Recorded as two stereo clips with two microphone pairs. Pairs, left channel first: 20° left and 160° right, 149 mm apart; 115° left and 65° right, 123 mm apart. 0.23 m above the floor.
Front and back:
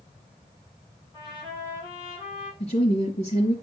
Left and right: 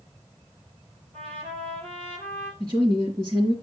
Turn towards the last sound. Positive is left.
turn(degrees=-10)